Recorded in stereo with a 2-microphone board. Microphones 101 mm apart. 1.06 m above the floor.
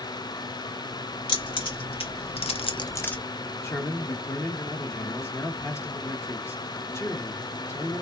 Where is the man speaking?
25° left (ahead or behind), 1.3 m.